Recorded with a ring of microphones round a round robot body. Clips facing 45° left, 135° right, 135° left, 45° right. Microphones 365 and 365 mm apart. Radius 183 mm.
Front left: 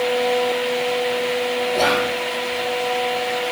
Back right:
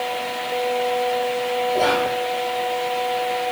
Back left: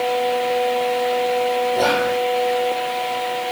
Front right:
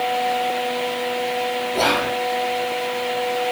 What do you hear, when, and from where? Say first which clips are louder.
1.7 s whispering: even, back left 3 dB; 15° right, 2.5 m